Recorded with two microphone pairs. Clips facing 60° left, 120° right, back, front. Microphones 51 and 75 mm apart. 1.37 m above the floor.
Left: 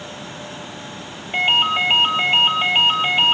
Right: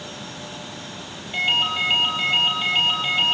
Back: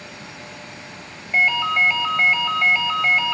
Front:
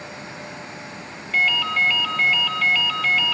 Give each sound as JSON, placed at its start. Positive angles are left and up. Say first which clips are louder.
{"t": 1.3, "sound": "a ringtone", "louder": "left 4 dB, back 3 dB", "azimuth_deg": 115, "distance_m": 4.5}